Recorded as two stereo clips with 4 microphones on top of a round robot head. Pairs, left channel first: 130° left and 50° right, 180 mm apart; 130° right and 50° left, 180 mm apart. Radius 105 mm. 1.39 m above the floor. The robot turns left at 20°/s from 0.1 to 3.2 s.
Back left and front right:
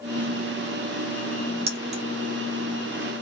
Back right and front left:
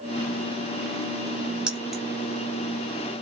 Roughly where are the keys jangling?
Ahead right.